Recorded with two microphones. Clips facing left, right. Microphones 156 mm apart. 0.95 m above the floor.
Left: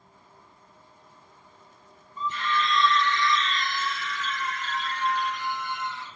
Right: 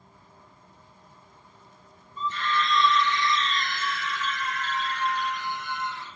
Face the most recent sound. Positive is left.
turn(degrees=-65)  # may be behind; listen again after turning